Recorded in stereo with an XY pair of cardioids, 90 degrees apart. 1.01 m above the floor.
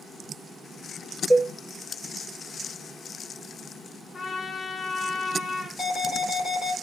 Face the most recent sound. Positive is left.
turn(degrees=15)